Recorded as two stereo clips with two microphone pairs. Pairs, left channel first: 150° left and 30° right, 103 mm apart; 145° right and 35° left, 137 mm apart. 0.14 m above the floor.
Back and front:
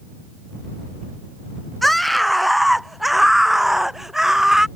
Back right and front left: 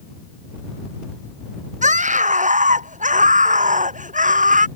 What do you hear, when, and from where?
1.8 s a scream: 60° left; by 4.7 s 55° left